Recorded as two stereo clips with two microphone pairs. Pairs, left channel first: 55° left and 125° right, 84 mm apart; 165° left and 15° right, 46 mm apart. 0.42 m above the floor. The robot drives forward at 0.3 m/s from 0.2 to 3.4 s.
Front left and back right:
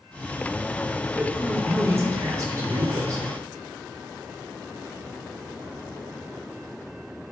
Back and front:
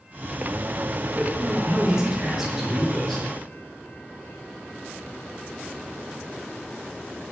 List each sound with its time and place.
1.1 s a man speaking: 70° right, 1.0 m; by 3.2 s 120° right, 1.0 m